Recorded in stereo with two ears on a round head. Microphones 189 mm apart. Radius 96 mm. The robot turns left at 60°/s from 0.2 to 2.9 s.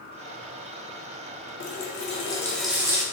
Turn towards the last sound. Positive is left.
turn(degrees=-15)